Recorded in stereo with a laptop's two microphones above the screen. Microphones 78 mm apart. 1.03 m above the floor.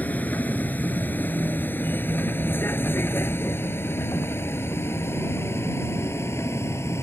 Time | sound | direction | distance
0.0 | a vehicle | 20° left (ahead or behind) | ?